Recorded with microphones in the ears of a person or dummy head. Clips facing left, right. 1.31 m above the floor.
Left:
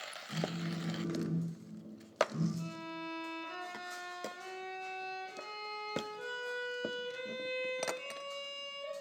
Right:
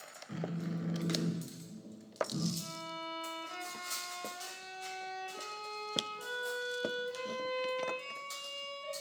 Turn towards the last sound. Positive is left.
turn(degrees=60)  # may be behind; listen again after turning